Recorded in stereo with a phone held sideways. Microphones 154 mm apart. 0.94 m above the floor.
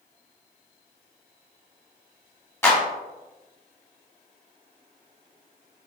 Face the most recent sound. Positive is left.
turn(degrees=15)  # may be behind; listen again after turning